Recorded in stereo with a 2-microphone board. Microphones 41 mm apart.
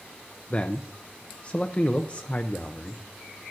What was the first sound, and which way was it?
A man speaking, 30° left (ahead or behind).